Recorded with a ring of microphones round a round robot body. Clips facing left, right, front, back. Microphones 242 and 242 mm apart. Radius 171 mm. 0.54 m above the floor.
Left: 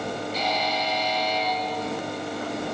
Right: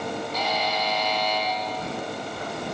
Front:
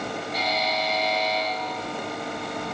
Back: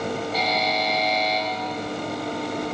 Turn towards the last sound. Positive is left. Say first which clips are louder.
# even, back 3 dB
turn(degrees=-140)